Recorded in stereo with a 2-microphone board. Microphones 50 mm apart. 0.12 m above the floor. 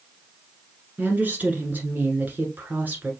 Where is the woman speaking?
35° right (ahead or behind), 1.3 m.